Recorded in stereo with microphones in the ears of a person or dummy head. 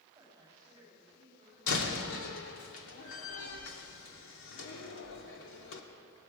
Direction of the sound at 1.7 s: 80° left.